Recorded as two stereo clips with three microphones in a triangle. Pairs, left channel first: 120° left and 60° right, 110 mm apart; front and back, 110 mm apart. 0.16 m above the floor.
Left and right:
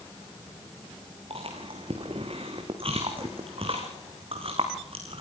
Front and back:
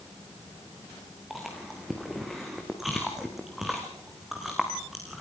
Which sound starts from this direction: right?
Chewing, at 1.3 s.